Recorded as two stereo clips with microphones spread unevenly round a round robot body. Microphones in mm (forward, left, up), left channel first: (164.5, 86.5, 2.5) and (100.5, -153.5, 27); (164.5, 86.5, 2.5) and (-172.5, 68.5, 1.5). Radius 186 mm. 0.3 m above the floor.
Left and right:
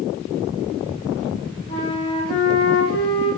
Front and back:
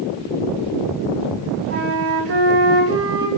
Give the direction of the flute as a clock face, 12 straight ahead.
8 o'clock.